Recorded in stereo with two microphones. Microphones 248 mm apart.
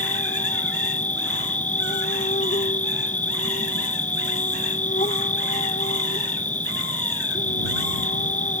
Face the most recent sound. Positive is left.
turn(degrees=30)  # may be behind; listen again after turning